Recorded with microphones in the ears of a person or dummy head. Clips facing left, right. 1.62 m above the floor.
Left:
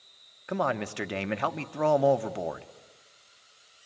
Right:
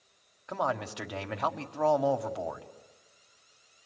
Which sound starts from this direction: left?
A man speaking, at 0.5 s.